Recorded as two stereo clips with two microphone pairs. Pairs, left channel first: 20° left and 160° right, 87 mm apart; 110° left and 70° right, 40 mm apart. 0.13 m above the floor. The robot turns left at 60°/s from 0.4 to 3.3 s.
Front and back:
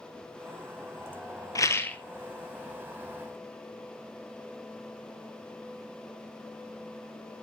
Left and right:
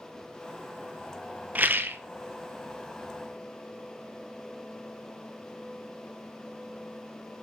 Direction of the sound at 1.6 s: 30° right.